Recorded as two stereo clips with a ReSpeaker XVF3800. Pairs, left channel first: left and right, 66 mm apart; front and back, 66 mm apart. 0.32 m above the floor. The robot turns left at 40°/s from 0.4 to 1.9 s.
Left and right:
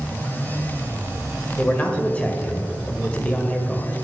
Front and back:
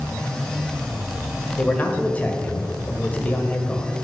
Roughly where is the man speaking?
Ahead left.